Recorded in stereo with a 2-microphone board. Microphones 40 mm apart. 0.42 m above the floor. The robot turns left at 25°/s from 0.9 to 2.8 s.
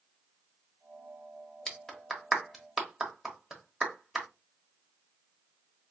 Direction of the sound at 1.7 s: 15° left (ahead or behind).